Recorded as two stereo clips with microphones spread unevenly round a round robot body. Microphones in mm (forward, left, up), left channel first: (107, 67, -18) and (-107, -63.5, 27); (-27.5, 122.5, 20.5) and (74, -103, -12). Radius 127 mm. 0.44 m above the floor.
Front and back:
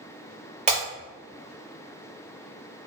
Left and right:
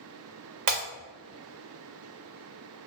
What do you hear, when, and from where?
0.7 s breaking glass: 85° right, 1.5 m